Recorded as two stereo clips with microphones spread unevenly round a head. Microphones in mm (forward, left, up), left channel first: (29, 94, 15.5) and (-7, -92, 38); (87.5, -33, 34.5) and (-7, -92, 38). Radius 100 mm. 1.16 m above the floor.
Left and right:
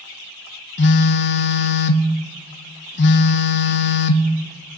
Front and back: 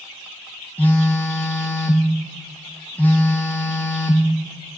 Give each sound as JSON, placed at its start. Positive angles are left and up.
{"t": 0.8, "sound": "a phone buzzing", "azimuth_deg": 115, "distance_m": 0.5}